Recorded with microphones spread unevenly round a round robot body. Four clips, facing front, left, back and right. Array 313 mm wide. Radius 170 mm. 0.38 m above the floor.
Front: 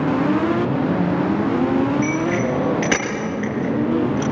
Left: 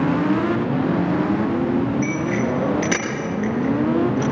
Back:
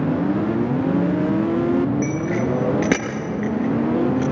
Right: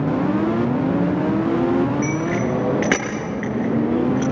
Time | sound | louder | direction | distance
2.0 | a bicycle bell | even, front 2 dB | 170° right | 6 m